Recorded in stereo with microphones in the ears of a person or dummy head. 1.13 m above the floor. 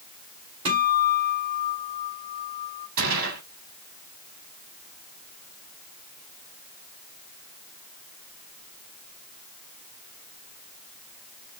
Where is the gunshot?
55° right (ahead or behind), 2 m.